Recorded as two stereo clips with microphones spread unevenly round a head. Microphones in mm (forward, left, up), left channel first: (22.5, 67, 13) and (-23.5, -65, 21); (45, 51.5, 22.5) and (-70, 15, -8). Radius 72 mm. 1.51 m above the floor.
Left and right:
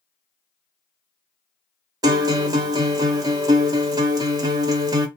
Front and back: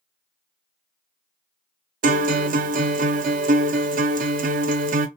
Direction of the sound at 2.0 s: 165° right.